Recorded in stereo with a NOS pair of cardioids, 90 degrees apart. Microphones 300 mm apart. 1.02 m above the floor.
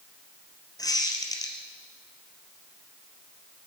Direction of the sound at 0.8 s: 15° left.